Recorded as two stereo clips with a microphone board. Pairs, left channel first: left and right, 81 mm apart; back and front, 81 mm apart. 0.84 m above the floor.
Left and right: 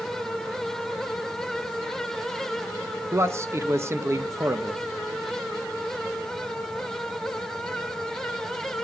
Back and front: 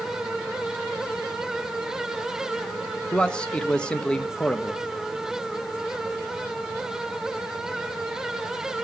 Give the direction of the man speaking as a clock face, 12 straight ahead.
4 o'clock.